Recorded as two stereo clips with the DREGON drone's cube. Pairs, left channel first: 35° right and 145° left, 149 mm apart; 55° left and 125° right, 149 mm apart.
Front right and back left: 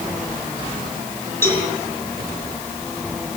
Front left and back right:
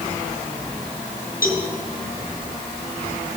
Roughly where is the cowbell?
Ahead left.